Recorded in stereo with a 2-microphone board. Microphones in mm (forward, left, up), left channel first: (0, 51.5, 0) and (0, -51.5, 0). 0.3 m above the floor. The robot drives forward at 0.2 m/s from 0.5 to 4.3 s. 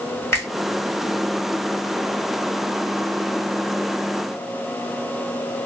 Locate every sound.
0.3 s a finger snap: 25° left (ahead or behind), 1.6 m